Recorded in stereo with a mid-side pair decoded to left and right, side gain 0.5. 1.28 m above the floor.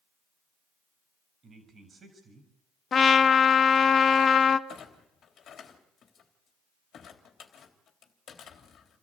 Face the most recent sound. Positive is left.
turn(degrees=55)